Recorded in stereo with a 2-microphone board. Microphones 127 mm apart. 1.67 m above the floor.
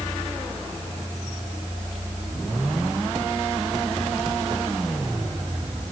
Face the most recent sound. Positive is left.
No sound to turn to.